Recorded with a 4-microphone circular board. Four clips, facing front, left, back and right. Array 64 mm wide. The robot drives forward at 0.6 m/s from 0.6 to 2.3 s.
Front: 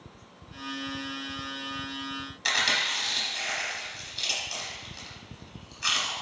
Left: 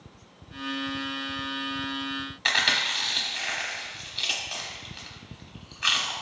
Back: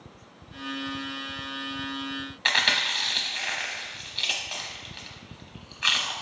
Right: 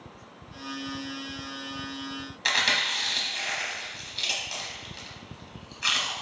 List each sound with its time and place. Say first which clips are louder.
2.5 s chewing: left 1 dB, back 2 dB; 170° left, 0.9 m